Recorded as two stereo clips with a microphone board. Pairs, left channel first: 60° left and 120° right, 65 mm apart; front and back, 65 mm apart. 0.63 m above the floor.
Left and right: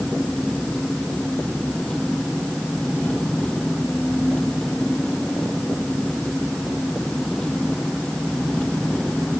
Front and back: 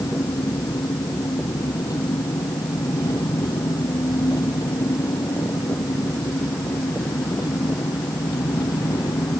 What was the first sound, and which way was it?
An engine running, 20° right.